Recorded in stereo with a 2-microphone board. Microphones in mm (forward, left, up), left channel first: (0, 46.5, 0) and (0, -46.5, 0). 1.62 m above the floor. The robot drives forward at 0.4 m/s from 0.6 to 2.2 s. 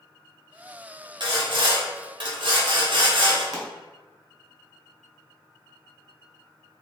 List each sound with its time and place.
1.2 s sawing: 55° right (ahead or behind), 0.9 m; by 3.4 s 60° right (ahead or behind), 0.8 m
3.5 s a pop: 40° right (ahead or behind), 0.8 m